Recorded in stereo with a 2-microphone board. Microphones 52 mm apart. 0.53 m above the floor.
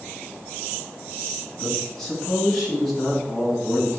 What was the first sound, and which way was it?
A man speaking, 10° left (ahead or behind).